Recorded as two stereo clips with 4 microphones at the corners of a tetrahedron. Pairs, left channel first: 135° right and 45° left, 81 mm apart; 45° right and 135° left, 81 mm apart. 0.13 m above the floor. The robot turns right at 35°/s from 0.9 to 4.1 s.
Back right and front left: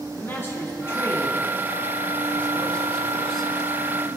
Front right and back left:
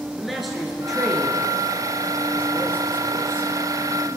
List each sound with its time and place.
0.2 s a man speaking: 135° right, 1.6 m; by 4.1 s 25° right, 1.6 m